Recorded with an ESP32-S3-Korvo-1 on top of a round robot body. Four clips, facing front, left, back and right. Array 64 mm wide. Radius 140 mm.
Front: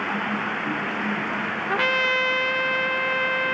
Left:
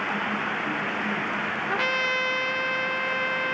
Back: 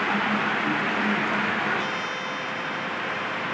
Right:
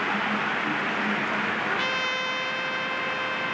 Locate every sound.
1.7 s a trumpet: 5° left